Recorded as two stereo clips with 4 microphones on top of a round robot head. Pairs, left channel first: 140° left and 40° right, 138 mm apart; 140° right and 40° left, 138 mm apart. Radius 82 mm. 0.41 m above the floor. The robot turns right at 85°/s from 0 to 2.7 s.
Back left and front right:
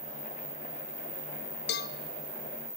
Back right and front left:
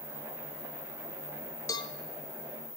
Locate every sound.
1.7 s a cowbell: 150° left, 0.7 m; by 1.9 s 170° left, 0.7 m